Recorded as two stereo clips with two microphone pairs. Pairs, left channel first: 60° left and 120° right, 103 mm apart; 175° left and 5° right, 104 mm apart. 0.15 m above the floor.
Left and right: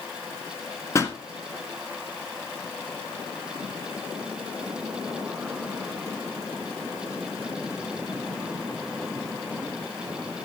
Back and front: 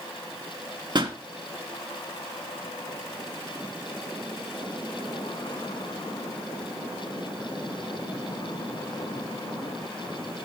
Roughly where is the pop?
Ahead.